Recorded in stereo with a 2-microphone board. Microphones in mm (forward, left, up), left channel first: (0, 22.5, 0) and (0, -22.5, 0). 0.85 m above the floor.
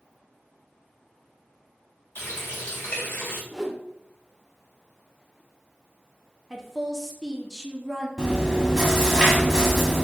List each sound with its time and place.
2.1 s a running tap: 60° left (ahead or behind), 2.0 m
3.5 s a whoosh: 15° right (ahead or behind), 0.5 m
6.5 s a woman speaking: 10° right (ahead or behind), 0.7 m
8.2 s chewing: 10° right (ahead or behind), 1.1 m